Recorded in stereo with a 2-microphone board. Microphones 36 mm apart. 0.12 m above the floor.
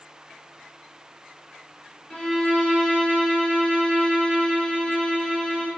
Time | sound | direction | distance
2.1 | a violin | 35° left (ahead or behind) | 1.4 m